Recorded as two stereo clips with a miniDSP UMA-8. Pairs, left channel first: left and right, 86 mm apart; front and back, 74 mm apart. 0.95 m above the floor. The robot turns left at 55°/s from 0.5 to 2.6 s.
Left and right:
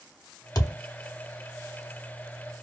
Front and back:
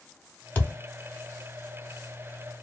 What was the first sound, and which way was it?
A thud, 65° left.